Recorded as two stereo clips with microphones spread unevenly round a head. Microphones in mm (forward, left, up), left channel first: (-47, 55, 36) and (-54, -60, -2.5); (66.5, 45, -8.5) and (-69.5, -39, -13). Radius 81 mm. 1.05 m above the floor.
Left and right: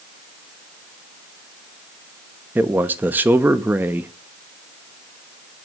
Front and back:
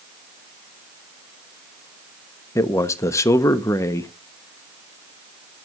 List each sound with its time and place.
2.5 s a man speaking: 40° right, 0.6 m